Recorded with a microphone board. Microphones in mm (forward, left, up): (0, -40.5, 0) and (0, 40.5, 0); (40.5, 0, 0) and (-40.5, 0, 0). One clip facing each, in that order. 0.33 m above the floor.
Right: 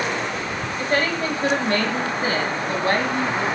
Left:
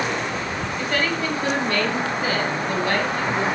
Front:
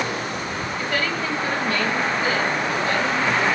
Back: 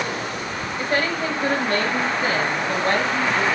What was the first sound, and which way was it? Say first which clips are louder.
A woman speaking: right 2 dB, back 3 dB; 135° right.